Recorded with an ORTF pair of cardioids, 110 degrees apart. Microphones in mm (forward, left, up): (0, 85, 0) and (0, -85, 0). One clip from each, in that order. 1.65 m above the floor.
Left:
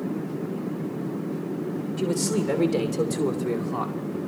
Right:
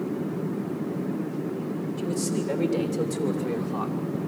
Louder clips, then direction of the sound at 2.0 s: Left 5 dB; 45° left.